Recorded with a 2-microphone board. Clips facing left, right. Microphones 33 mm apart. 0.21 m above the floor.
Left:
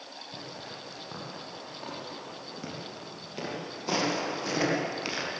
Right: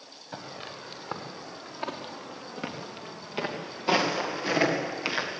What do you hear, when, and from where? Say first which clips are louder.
0.3 s footsteps: right 4 dB; 65° right (ahead or behind), 4 m; by 5.3 s 25° right (ahead or behind), 4 m